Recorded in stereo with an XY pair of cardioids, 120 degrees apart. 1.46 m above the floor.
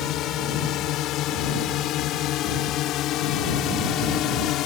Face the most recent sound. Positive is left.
turn(degrees=70)